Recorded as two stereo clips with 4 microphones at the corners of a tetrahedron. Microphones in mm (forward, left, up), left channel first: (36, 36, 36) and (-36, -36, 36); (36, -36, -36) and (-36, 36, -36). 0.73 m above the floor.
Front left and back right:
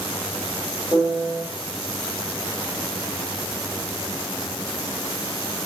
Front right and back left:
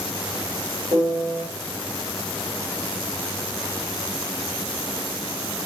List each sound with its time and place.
0.9 s a piano: 155° left, 1.7 m